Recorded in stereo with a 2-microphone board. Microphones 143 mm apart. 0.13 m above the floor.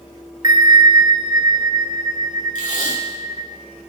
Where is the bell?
25° right (ahead or behind), 1.1 m.